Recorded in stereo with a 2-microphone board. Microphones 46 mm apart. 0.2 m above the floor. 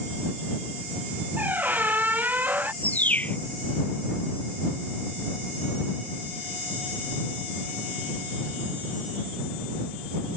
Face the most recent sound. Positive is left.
turn(degrees=35)  # may be behind; listen again after turning